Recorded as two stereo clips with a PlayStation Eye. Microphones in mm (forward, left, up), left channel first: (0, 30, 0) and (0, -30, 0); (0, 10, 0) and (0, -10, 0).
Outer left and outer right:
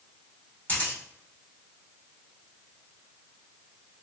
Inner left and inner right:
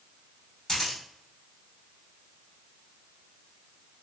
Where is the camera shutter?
35° left (ahead or behind), 1.4 m.